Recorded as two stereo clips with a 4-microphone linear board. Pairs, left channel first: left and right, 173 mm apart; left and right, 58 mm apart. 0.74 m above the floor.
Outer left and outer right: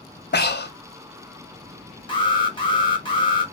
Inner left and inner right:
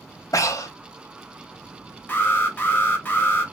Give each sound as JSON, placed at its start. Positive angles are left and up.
{"t": 0.3, "sound": "breathing", "side_deg": 75, "distance_m": 0.5}
{"t": 2.1, "sound": "an alarm", "side_deg": 30, "distance_m": 0.9}